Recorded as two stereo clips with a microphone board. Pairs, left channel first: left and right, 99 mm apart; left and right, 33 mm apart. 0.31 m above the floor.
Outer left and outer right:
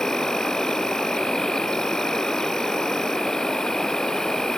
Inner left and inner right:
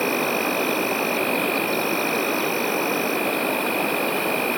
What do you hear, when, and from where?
0.0 s an insect: 5° left (ahead or behind)